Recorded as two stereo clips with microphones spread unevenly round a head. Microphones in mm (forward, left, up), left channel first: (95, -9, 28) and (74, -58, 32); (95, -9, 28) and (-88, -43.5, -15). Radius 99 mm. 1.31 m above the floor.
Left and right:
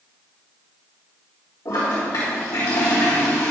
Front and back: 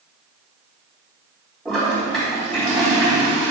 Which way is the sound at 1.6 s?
95° left.